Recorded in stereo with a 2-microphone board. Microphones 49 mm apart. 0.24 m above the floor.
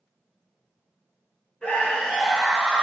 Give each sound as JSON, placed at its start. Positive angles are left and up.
{"t": 1.6, "sound": "a scream", "side_deg": 25, "distance_m": 1.3}